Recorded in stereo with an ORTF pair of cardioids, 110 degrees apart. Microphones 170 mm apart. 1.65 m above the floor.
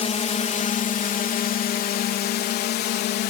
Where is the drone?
40° left; by 3.3 s 80° left.